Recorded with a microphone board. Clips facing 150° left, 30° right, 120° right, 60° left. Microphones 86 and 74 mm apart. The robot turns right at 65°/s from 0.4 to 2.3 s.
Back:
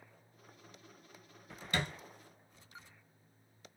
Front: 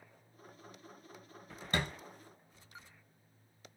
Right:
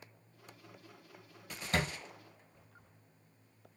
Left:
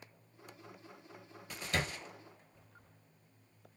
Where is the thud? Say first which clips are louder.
Front 1 dB, right 2 dB; 80° right, 1.6 m; by 1.9 s 70° right, 1.6 m.